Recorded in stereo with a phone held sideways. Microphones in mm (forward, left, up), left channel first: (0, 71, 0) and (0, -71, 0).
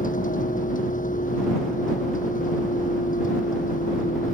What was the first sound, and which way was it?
A vehicle, 65° left (ahead or behind).